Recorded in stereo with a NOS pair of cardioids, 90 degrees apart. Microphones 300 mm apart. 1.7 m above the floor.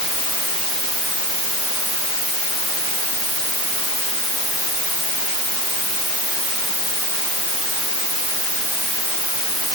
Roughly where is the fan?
I don't hear a fan.